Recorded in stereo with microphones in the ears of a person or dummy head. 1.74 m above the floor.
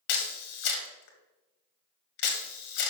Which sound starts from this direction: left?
A camera shutter, at 0.1 s.